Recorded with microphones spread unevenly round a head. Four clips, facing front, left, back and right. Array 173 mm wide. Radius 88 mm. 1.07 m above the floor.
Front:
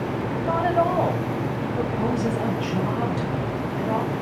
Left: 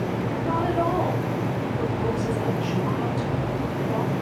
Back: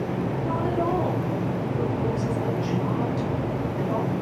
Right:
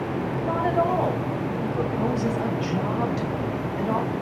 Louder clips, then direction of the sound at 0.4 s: Right 1 dB, front 6 dB; 20° right.